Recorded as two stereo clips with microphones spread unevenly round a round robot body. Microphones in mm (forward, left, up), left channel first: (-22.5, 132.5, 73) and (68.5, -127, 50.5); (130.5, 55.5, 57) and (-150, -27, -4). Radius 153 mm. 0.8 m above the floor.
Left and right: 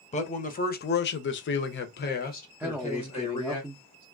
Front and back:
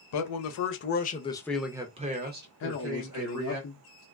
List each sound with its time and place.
0.1 s a man speaking: 45° left, 0.9 m; by 3.6 s straight behind, 1.3 m
2.6 s a man speaking: straight ahead, 0.7 m